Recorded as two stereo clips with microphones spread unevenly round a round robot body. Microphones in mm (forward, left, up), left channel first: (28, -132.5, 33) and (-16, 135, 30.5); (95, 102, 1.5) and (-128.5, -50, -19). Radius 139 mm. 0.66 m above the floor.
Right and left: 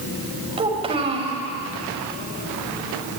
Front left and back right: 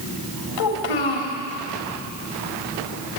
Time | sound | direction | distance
0.6 | a child speaking | 30° left | 2.5 m